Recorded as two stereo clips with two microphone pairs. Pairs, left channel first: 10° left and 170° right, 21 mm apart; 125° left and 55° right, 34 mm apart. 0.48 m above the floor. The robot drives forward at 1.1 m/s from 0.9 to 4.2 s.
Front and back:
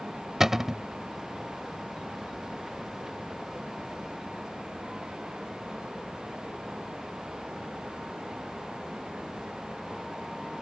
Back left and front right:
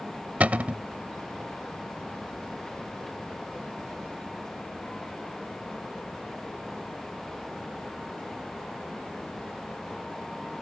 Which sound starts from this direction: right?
A cupboard door, at 0.4 s.